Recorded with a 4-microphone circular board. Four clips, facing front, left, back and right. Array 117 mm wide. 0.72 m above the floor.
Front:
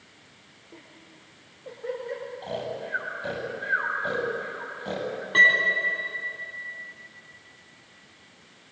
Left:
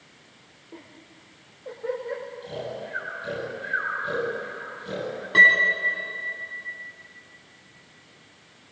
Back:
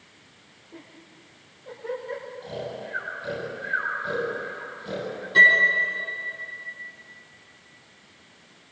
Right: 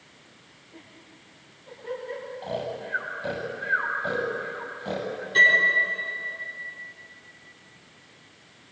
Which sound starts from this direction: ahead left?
A piano, at 5.3 s.